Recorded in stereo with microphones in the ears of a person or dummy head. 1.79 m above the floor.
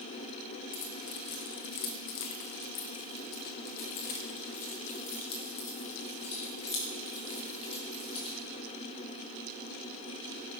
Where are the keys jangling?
40° left (ahead or behind), 1.4 m; by 8.3 s 30° left (ahead or behind), 3.5 m.